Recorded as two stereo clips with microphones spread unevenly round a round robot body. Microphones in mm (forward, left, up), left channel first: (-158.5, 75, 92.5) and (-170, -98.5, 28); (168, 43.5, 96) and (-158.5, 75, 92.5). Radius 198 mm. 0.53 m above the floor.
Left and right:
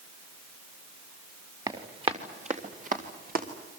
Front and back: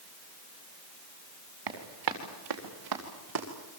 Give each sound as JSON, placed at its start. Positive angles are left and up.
{"t": 1.7, "sound": "running footsteps", "azimuth_deg": -160, "distance_m": 4.0}